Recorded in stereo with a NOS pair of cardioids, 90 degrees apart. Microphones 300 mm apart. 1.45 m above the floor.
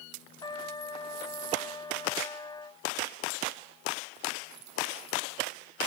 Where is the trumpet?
15° left.